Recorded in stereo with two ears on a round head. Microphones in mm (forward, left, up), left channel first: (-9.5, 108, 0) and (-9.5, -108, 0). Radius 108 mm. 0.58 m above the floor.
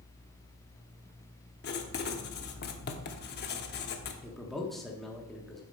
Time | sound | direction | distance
1.6 | writing | 45° left (ahead or behind) | 0.9 m
4.2 | a man speaking | centre (ahead or behind) | 1.1 m